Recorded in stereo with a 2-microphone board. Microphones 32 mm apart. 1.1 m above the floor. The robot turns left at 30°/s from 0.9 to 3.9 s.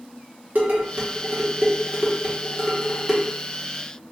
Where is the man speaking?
No man speaking in this recording.